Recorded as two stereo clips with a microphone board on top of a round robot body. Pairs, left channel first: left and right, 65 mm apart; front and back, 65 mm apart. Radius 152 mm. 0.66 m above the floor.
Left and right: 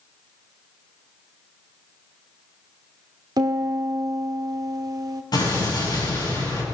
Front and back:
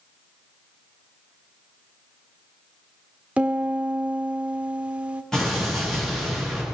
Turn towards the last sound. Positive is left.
turn(degrees=85)